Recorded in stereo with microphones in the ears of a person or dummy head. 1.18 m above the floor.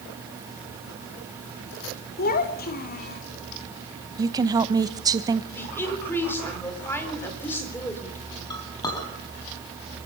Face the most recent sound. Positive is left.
turn(degrees=20)  # may be behind; listen again after turning